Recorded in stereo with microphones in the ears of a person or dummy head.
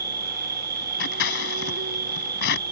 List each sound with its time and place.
0.0 s an insect: 50° right (ahead or behind)
1.0 s scissors: 70° left (ahead or behind)